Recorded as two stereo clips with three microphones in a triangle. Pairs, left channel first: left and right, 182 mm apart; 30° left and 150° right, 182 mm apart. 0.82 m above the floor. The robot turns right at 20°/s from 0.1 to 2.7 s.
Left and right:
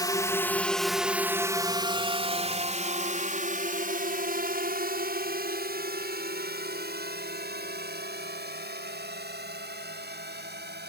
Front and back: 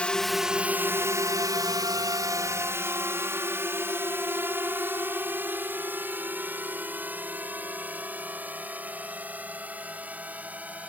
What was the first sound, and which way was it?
A drone, 100° left.